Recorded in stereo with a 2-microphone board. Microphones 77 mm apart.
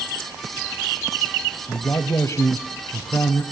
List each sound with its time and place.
1.7 s a man speaking: 40° left (ahead or behind), 1.2 m